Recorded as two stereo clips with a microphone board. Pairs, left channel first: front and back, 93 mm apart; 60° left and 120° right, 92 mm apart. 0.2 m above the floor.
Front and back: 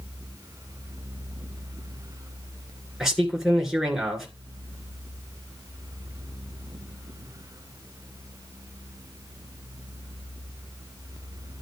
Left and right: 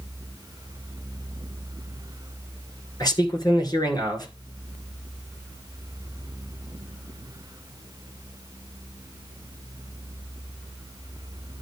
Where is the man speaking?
95° left, 3 m.